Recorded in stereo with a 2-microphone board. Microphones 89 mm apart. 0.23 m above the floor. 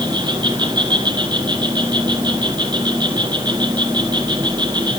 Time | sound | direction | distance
0.0 | an insect | 55° right (ahead or behind) | 3.5 m